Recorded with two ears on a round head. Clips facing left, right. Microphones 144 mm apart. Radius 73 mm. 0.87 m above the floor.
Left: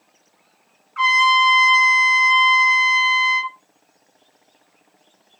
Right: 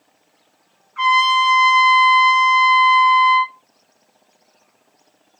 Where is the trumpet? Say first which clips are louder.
Right 1 dB; 50° left (ahead or behind), 1.6 m.